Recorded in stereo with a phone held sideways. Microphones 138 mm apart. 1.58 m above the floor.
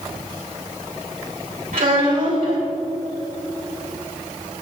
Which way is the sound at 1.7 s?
75° right (ahead or behind).